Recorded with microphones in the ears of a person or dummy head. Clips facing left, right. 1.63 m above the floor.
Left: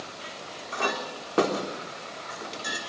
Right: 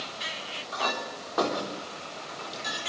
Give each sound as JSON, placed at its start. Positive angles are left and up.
{"t": 0.7, "sound": "a clink", "side_deg": 35, "distance_m": 3.5}